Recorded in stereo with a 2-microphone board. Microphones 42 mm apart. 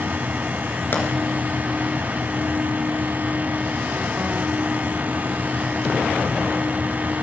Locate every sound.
0.9 s a pop: 50° left (ahead or behind), 2.5 m